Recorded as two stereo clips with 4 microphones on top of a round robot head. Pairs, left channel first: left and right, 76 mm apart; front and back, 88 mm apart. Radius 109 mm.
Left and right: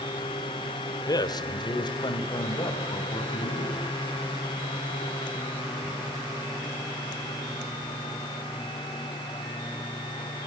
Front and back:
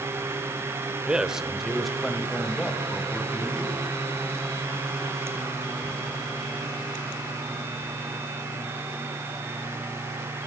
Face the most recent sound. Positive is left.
turn(degrees=85)